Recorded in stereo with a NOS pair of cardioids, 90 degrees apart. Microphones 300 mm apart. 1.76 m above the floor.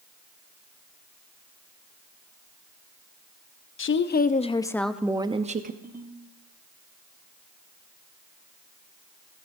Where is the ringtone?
35° right, 5 m.